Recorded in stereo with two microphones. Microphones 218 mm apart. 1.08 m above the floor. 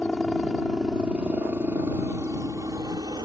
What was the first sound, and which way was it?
A helicopter, 5° left (ahead or behind).